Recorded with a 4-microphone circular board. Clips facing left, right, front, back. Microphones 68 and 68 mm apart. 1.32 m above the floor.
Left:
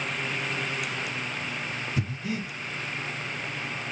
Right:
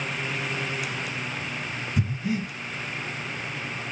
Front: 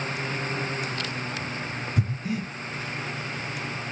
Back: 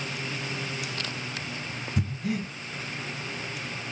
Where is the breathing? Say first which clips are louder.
Right 6 dB, even; 165° right, 2.5 m.